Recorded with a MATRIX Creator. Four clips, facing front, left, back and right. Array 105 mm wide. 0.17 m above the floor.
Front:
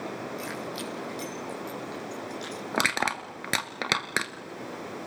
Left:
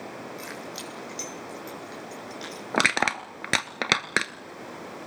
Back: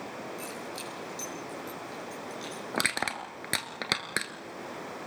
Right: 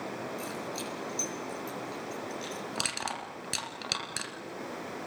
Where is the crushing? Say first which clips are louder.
Left 16 dB, front 5 dB; 75° left, 1.9 m.